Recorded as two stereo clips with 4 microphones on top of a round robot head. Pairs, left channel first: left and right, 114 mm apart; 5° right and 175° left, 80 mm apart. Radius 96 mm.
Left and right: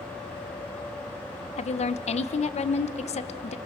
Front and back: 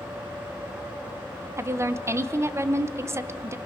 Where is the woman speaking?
120° left, 1.0 m.